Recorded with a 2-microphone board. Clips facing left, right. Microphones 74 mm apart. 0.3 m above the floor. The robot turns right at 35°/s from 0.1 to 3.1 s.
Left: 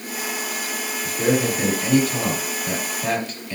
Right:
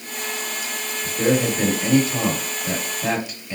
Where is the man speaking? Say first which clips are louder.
Right 1 dB; 20° right (ahead or behind), 0.9 m; by 3.6 s 10° right (ahead or behind), 0.9 m.